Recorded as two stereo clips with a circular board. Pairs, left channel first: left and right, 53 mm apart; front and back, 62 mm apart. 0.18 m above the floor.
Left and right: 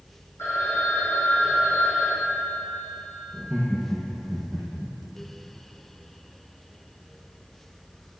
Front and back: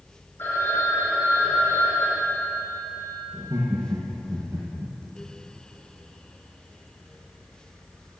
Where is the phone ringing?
55° left, 4.5 m.